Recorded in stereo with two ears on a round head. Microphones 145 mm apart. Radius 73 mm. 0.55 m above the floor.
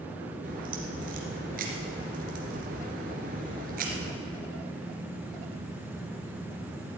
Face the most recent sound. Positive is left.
turn(degrees=-55)  # may be behind; listen again after turning